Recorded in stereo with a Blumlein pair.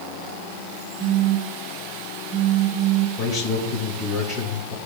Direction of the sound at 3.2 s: 20° left.